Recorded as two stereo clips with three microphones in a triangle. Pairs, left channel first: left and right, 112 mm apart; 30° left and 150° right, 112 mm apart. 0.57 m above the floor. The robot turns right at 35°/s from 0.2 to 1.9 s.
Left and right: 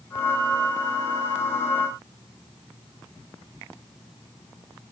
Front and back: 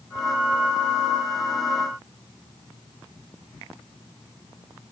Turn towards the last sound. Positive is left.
No sound to turn to.